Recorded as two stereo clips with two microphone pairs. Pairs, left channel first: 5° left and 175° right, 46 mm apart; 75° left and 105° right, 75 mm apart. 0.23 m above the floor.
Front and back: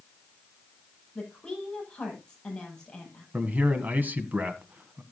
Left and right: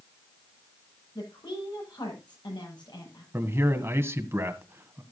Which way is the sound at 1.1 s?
75° left.